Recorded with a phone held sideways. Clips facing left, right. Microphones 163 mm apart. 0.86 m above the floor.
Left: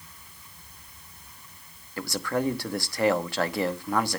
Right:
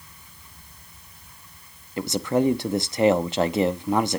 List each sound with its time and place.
2.0 s a man speaking: 20° right (ahead or behind), 0.9 m